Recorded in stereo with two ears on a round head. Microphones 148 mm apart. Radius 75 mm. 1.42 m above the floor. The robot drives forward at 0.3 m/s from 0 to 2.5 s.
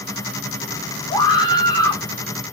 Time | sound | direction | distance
1.1 | a scream | 25° left (ahead or behind) | 1.2 m